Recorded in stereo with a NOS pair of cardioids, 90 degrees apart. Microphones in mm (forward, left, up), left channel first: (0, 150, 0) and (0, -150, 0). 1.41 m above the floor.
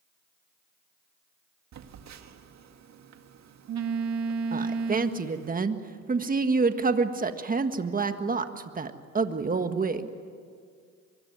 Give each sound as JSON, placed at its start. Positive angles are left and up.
{"t": 1.7, "sound": "a phone buzzing", "azimuth_deg": -60, "distance_m": 2.0}
{"t": 4.5, "sound": "a woman speaking", "azimuth_deg": -25, "distance_m": 1.6}